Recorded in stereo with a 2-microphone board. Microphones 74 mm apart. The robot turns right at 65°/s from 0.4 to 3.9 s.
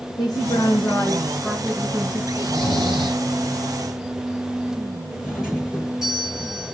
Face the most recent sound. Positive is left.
turn(degrees=-10)  # may be behind; listen again after turning